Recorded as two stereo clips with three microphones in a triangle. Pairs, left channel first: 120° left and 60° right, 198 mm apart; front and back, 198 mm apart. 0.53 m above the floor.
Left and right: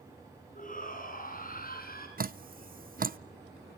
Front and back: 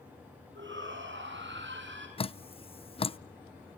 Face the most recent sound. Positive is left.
turn(degrees=-50)